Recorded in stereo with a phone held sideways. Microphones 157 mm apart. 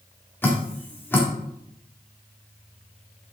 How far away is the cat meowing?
No cat meowing in this recording.